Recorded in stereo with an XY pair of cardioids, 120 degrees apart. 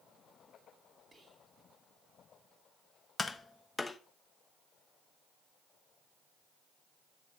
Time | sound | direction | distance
1.1 | whispering | 20° right | 3 m
3.2 | tapping | 20° left | 0.9 m